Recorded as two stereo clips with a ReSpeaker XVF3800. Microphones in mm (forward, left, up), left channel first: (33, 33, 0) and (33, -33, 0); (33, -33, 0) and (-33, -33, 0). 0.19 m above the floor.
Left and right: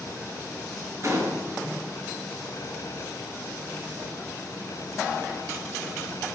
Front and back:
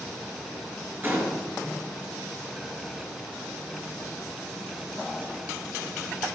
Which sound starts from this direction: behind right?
A gunshot, at 1.0 s.